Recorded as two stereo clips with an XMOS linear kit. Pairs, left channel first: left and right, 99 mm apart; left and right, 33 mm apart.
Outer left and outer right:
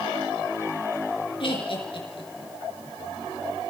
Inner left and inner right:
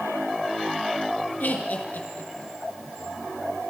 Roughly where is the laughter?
Left.